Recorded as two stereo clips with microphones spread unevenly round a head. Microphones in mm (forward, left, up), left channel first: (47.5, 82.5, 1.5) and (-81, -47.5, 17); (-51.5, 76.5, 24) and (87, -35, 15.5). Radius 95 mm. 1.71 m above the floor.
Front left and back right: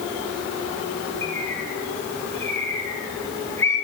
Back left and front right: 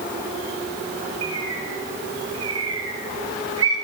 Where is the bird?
35° right, 7 m.